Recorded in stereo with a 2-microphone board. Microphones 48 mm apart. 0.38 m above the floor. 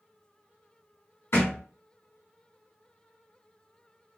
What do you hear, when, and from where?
1.3 s a thud: 75° left (ahead or behind), 1.5 m